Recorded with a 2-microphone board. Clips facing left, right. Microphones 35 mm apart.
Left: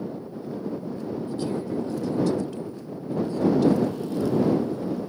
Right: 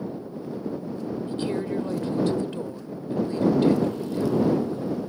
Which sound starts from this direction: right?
A woman speaking, at 1.3 s.